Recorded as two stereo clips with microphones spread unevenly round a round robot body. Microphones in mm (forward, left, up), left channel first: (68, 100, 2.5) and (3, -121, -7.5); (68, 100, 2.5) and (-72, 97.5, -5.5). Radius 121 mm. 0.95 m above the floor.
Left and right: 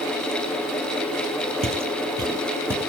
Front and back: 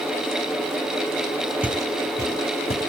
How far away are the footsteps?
About 1.0 m.